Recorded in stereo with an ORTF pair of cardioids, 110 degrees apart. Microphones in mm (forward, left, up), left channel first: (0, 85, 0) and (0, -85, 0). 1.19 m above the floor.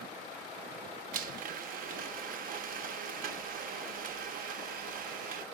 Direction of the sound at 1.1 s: 55° right.